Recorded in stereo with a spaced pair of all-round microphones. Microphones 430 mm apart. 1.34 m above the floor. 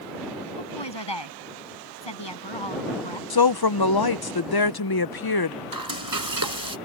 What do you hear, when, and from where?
0.6 s a woman speaking: 75° left (ahead or behind)
3.3 s a woman speaking: 60° left (ahead or behind)
5.7 s frying: 50° right (ahead or behind)